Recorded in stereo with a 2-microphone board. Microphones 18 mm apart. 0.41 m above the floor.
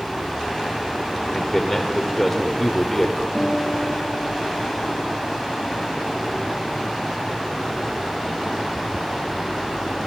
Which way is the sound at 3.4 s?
55° right (ahead or behind).